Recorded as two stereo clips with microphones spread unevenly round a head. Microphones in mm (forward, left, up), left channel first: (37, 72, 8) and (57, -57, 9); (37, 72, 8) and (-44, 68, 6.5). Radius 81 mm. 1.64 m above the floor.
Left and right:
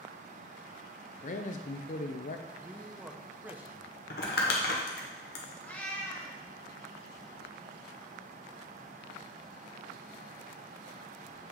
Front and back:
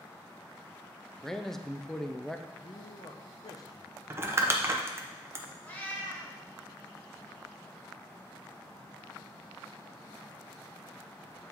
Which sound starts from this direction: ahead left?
A cat meowing, at 5.6 s.